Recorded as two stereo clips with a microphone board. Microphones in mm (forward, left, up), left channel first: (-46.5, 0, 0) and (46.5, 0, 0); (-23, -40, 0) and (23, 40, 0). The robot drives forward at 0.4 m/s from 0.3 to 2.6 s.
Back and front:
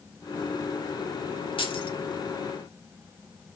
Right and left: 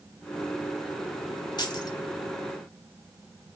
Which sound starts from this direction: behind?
Keys jangling, at 1.6 s.